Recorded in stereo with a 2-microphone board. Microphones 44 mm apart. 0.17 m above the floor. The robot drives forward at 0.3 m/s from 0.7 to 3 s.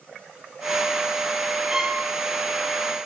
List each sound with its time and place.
1.7 s a violin: 15° right (ahead or behind), 3 m